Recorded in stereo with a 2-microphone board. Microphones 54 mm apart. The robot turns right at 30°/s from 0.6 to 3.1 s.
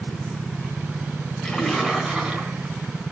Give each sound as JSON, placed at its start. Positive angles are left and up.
{"t": 1.4, "sound": "a splash", "azimuth_deg": 170, "distance_m": 5.0}